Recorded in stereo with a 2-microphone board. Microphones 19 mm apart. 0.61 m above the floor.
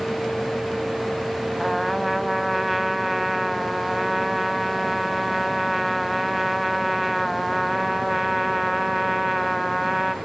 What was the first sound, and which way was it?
A trumpet, centre (ahead or behind).